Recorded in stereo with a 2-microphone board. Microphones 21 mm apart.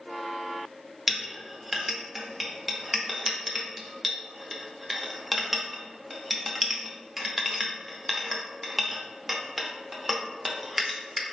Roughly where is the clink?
Centre.